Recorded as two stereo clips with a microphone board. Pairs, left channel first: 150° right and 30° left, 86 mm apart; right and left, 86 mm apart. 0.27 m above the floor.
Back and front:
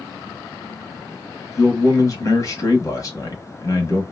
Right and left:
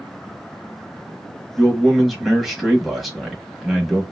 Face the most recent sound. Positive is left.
turn(degrees=180)